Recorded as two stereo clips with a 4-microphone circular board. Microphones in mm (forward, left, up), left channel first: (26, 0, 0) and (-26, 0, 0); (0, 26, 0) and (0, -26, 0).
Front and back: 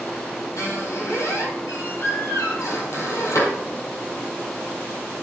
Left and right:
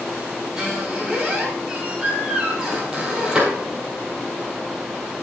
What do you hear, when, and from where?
0.6 s a squeak: 15° right, 2.5 m